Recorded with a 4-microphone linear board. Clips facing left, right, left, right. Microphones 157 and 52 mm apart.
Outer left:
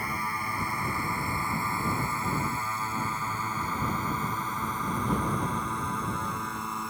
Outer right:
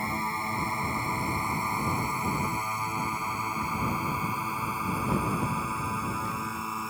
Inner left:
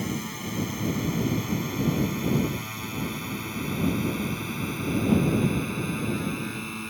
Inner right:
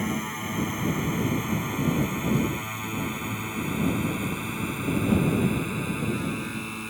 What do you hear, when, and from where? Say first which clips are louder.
0.0 s a drone: outer right 2 dB, inner right 2 dB; 25° right (ahead or behind); by 6.9 s centre (ahead or behind)